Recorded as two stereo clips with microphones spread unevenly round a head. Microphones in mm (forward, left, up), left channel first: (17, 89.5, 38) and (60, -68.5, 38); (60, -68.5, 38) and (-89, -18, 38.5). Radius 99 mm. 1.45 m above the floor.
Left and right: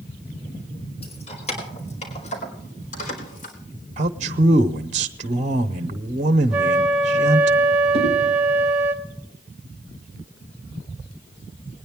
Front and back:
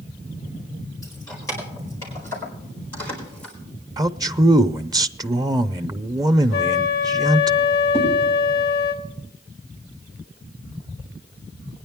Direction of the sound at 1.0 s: 55° left.